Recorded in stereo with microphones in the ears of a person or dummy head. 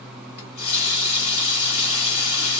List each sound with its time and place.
0.4 s a running tap: 35° left (ahead or behind), 3 m